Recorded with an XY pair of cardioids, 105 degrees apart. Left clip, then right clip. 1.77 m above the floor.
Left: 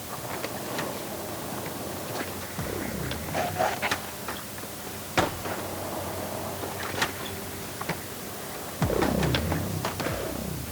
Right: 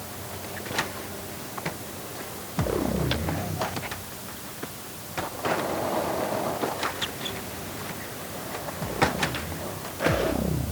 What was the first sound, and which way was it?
Only background noise.